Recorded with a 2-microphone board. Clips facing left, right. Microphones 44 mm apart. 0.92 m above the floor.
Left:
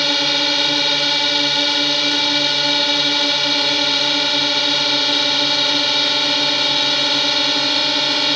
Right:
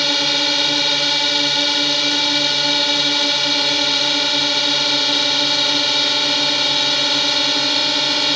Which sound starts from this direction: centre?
A drone, at 0.0 s.